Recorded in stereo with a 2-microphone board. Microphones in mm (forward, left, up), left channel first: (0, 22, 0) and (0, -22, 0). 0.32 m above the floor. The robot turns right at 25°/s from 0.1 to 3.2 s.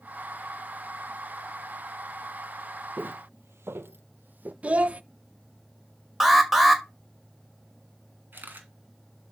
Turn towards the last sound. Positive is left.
turn(degrees=-50)  # may be behind; listen again after turning